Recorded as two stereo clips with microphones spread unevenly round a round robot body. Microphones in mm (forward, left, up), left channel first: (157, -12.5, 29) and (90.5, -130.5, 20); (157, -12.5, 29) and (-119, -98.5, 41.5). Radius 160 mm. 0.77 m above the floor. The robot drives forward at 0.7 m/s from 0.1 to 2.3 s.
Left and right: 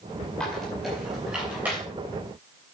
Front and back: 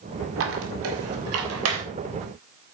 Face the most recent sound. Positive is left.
turn(degrees=160)